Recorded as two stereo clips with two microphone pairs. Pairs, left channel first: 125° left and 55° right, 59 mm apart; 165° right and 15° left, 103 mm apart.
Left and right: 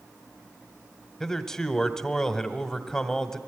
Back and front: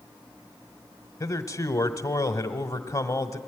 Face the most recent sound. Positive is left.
turn(degrees=-160)